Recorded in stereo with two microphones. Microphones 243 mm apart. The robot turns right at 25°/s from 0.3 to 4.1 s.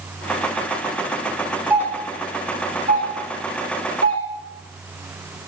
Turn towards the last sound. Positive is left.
turn(degrees=-65)  # may be behind; listen again after turning